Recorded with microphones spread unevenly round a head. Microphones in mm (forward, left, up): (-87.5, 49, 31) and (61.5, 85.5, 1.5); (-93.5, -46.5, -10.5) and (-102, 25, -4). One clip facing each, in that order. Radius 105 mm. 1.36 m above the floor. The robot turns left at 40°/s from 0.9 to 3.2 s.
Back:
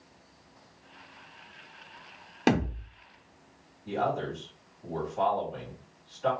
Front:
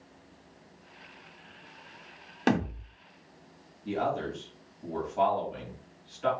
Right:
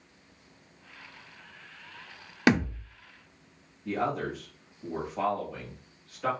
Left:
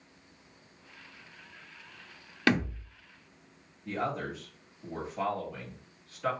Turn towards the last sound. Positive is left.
turn(degrees=-30)